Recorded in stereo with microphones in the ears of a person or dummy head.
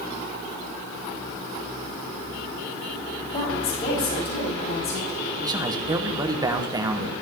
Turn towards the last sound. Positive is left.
turn(degrees=-15)  # may be behind; listen again after turning